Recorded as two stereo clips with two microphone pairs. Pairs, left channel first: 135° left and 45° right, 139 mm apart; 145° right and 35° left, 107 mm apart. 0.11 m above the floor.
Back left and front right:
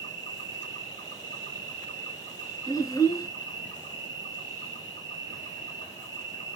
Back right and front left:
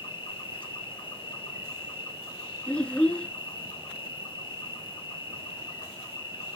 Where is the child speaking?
145° left, 0.7 m.